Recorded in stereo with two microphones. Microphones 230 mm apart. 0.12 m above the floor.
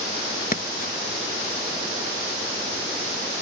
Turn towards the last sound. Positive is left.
turn(degrees=40)  # may be behind; listen again after turning